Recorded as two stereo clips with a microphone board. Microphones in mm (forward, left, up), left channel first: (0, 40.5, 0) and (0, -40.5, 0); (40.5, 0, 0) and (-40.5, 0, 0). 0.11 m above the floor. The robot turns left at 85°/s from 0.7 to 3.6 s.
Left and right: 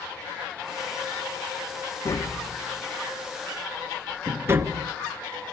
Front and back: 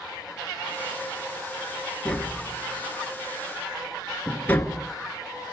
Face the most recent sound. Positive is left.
turn(degrees=-55)